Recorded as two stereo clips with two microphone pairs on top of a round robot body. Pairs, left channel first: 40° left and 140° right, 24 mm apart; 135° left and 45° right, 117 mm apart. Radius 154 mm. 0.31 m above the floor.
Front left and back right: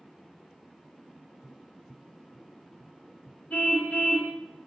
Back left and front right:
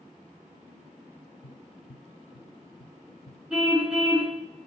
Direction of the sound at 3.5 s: 40° left.